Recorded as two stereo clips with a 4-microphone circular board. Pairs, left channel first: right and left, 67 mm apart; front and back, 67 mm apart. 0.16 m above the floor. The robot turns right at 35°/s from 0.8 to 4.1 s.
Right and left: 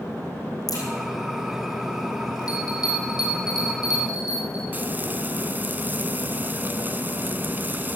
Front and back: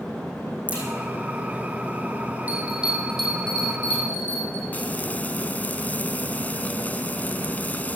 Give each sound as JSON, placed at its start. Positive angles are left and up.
{"t": 0.7, "sound": "a crack", "azimuth_deg": -110, "distance_m": 5.0}
{"t": 2.5, "sound": "a bell", "azimuth_deg": -115, "distance_m": 4.5}
{"t": 4.7, "sound": "frying", "azimuth_deg": 50, "distance_m": 0.8}